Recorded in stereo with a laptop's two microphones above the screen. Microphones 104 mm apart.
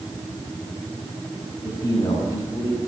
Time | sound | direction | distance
1.6 | a man speaking | 60° left (ahead or behind) | 7 m